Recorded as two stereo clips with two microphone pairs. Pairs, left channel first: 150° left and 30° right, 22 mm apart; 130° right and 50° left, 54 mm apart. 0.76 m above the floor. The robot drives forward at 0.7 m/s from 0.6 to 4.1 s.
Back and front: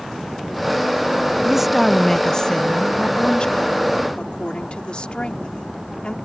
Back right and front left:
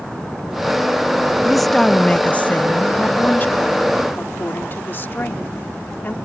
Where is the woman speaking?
25° right; by 6.2 s 175° right.